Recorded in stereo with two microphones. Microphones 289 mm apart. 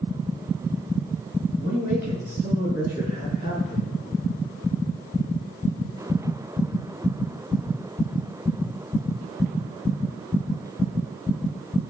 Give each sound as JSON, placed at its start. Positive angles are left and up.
{"t": 1.6, "sound": "a man speaking", "side_deg": -30, "distance_m": 6.0}